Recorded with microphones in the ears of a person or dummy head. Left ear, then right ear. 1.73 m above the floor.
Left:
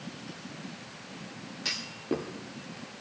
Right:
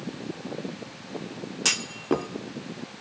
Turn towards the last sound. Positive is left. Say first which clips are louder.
# right 7 dB
turn(degrees=-40)  # may be behind; listen again after turning